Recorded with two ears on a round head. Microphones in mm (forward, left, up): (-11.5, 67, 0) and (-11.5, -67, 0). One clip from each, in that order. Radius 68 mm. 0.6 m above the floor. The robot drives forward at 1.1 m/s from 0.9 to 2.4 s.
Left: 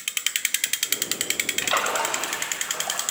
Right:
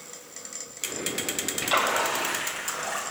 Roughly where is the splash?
Left.